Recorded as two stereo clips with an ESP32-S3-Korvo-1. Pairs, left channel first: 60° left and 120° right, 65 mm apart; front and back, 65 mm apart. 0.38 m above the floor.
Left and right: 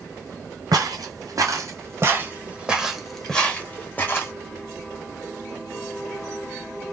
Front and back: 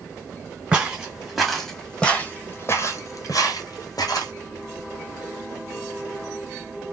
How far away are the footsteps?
About 1.3 m.